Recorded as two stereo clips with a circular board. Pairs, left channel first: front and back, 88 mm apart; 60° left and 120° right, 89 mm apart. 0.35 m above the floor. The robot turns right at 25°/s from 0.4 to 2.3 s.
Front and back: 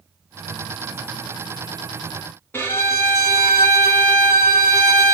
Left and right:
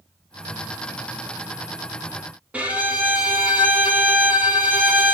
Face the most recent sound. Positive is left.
turn(degrees=-55)